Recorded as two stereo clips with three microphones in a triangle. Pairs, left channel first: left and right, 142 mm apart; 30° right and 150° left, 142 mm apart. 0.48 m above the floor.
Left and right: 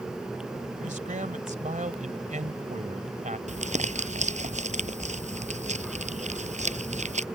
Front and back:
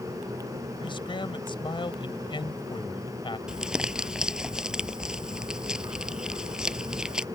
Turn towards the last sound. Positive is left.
turn(degrees=-125)